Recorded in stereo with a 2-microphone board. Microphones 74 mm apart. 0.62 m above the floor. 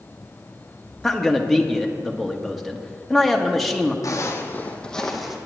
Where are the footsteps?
45° left (ahead or behind), 1.5 m; by 5.4 s 5° right (ahead or behind), 1.7 m.